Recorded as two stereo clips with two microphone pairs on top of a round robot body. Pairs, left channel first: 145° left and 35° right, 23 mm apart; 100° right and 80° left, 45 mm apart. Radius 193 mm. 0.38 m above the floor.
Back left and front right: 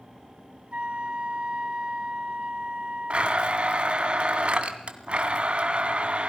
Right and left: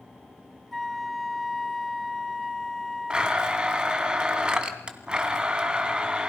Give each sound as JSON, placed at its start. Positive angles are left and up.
{"t": 0.7, "sound": "a flute", "azimuth_deg": -15, "distance_m": 1.9}
{"t": 3.1, "sound": "a blender", "azimuth_deg": 5, "distance_m": 1.8}